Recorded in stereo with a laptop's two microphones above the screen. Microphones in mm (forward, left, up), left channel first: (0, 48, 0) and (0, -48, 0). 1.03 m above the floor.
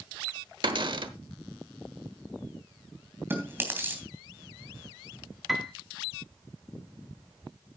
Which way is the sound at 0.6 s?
55° right (ahead or behind).